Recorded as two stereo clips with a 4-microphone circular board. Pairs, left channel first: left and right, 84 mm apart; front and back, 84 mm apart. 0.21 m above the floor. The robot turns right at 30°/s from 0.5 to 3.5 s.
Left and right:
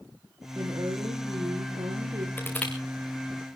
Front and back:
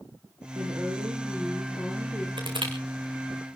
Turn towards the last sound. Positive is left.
turn(degrees=-170)